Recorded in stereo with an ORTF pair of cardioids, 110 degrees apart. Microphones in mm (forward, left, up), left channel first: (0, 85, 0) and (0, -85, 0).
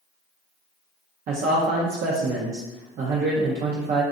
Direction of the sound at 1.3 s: 60° right.